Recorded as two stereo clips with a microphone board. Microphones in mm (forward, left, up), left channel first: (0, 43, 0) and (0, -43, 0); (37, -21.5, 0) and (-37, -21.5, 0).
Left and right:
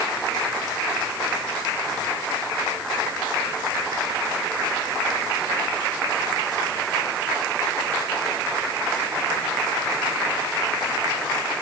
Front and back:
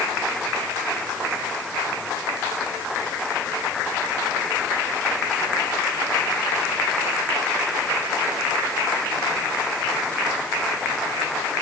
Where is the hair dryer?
No hair dryer in this recording.